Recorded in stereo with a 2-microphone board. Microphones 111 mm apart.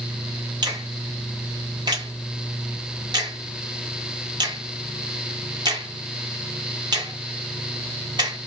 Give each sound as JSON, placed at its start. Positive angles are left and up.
{"t": 0.6, "sound": "a finger snap", "side_deg": -40, "distance_m": 1.9}